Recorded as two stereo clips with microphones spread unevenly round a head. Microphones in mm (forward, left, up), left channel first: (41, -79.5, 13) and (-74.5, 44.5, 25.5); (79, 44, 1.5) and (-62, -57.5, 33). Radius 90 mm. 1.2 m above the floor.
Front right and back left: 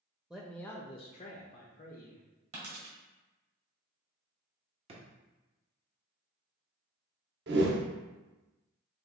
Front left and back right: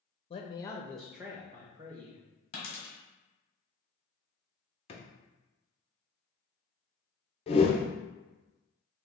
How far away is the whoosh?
About 0.6 m.